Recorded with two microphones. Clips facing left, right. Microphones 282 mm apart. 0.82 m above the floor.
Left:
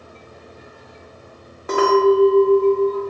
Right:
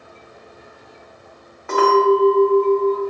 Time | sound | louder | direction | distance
1.7 | a clink | left 1 dB | 40° left (ahead or behind) | 0.8 m